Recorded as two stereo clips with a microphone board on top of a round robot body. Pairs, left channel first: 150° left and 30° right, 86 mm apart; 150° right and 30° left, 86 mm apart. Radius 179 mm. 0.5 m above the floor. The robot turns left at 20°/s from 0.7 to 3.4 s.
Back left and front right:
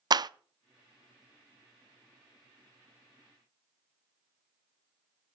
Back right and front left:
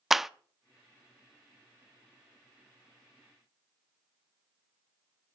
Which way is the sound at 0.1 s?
55° right.